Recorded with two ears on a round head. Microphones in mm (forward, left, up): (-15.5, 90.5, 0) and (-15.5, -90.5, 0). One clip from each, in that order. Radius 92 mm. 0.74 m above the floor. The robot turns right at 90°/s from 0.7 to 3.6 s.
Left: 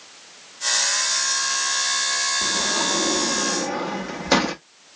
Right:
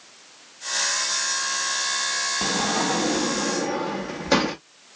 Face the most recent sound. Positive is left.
turn(degrees=15)